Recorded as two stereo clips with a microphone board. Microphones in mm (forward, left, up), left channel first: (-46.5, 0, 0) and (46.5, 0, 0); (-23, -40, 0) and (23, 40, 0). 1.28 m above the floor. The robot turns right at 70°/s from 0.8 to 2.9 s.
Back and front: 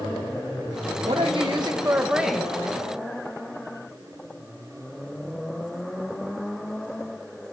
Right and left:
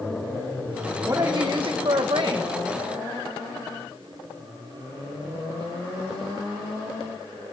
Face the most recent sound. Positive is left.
turn(degrees=130)